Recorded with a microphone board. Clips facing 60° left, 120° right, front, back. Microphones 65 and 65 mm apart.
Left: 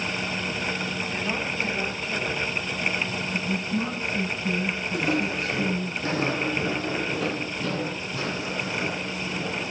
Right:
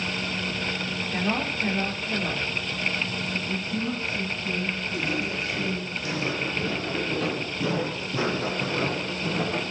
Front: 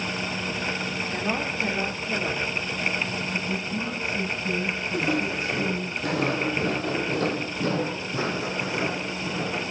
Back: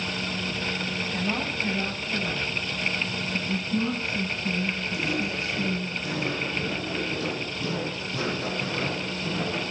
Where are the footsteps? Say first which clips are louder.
Left 5 dB, front 5 dB; 35° left, 4 m; by 9.6 s 85° right, 4.5 m.